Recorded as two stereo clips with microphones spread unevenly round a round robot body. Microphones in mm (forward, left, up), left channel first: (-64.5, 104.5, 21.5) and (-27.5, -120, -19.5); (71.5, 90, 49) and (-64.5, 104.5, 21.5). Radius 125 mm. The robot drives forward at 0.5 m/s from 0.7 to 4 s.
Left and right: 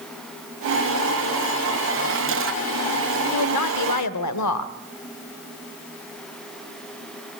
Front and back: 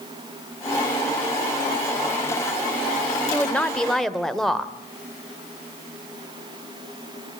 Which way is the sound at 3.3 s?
75° left.